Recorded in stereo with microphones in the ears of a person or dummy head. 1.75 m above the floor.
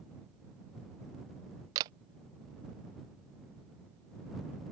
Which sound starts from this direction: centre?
A camera shutter, at 1.8 s.